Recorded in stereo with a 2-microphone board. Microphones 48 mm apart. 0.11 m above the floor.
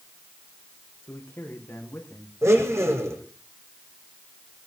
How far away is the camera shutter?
No camera shutter in this recording.